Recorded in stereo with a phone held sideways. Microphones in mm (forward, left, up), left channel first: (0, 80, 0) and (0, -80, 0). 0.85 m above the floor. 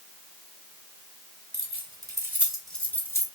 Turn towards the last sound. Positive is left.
turn(degrees=20)  # may be behind; listen again after turning